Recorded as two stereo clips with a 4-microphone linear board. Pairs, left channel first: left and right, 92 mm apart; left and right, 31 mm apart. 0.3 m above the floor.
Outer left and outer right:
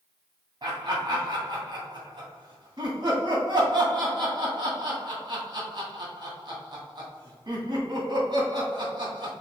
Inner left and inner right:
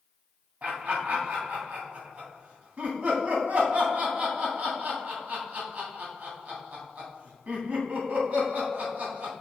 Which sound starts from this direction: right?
Laughter, at 0.6 s.